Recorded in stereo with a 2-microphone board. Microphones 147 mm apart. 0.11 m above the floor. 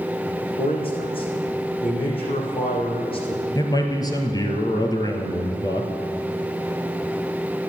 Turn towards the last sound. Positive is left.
turn(degrees=25)  # may be behind; listen again after turning